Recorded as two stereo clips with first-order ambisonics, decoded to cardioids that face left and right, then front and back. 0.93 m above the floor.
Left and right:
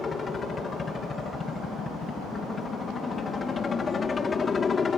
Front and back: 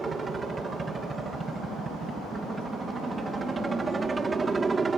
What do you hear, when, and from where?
0.0 s a helicopter: 120° left